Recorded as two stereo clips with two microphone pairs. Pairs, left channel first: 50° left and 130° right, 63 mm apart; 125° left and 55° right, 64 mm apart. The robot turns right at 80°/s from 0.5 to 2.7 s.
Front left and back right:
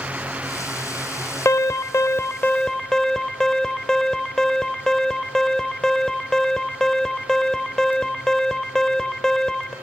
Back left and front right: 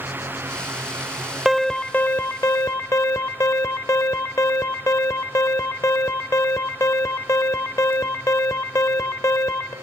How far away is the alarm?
About 0.8 m.